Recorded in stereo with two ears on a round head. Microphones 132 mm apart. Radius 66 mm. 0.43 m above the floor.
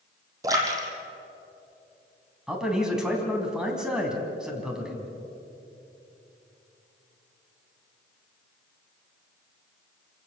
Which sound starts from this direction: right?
A splash, at 0.4 s.